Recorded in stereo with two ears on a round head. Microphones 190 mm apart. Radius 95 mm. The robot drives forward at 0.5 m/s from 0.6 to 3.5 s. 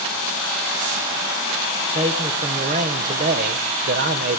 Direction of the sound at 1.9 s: 30° right (ahead or behind).